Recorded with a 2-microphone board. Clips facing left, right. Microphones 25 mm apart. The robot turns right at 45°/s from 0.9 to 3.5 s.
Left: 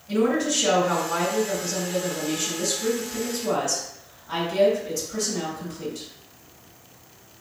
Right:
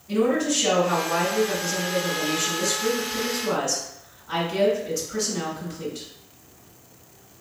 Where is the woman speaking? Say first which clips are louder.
Even; 20° left (ahead or behind), 1.7 m; by 6.1 s centre (ahead or behind), 1.7 m.